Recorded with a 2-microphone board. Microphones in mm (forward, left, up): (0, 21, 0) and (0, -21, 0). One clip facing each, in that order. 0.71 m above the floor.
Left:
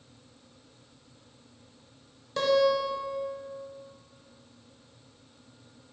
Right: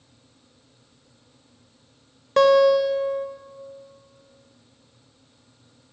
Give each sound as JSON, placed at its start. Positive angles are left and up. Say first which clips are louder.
{"t": 2.4, "sound": "a guitar", "louder": "right 8 dB", "side_deg": -50, "distance_m": 0.6}